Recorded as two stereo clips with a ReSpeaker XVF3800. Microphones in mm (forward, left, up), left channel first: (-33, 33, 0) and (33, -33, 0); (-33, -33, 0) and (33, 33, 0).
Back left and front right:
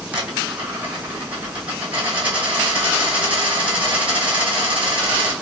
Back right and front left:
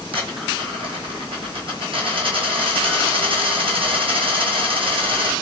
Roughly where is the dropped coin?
Ahead left.